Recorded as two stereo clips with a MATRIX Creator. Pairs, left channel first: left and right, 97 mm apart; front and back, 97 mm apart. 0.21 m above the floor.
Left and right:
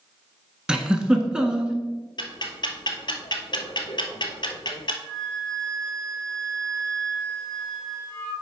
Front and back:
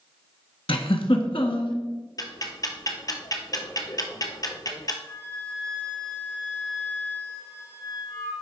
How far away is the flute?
About 3.5 m.